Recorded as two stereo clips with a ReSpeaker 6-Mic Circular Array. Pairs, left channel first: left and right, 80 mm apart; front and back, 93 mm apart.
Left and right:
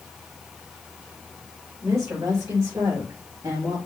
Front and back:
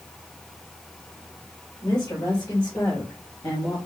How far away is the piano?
I don't hear a piano.